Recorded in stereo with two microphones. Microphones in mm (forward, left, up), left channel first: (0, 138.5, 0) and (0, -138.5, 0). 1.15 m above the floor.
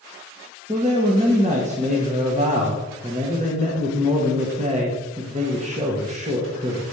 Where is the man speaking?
25° right (ahead or behind), 1.3 m.